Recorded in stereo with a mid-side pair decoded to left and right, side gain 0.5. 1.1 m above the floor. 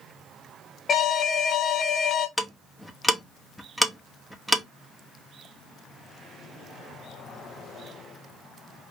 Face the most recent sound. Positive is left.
turn(degrees=0)